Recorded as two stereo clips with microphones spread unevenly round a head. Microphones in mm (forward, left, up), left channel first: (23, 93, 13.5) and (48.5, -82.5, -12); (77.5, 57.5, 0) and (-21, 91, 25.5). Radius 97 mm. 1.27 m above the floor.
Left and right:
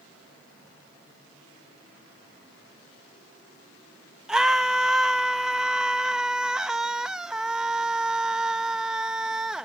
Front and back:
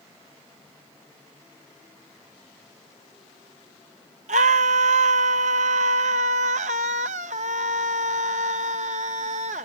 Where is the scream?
170° right.